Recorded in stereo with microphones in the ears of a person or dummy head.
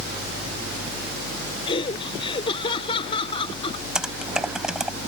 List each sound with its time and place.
1.7 s laughter: 30° left (ahead or behind)
4.0 s typing on a keyboard: 5° right (ahead or behind)